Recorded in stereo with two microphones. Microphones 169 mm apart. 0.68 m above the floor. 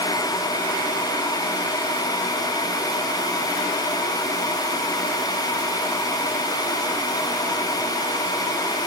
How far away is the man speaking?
I don't hear a man speaking.